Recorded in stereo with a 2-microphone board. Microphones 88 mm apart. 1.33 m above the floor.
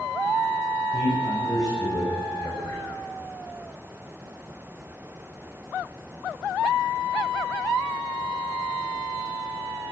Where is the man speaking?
45° left (ahead or behind), 6 m.